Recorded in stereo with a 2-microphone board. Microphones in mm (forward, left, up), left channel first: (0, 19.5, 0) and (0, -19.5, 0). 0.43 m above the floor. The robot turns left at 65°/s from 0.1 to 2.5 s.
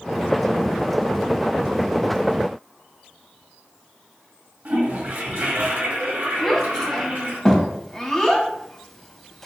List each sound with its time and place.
4.7 s a toilet flushing: 60° right (ahead or behind), 2 m
6.4 s a child speaking: 5° left (ahead or behind), 1.2 m